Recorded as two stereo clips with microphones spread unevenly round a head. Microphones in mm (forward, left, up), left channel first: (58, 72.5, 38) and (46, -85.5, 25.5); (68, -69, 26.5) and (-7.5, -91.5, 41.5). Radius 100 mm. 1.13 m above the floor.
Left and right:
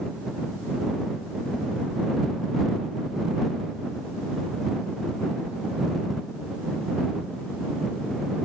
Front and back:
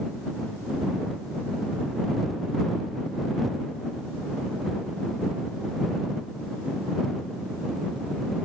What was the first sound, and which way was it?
Only background noise.